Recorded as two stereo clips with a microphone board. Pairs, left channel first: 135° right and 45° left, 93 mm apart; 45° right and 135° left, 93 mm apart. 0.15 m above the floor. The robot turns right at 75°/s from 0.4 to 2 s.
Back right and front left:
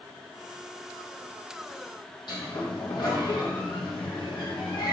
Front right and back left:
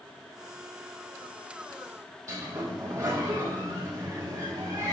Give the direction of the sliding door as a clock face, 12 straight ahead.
6 o'clock.